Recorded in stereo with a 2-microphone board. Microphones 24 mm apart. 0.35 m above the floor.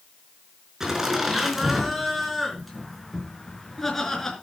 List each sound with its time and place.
0.8 s laughter: 20° right (ahead or behind), 4.5 m; by 4.3 s 15° left (ahead or behind), 4.5 m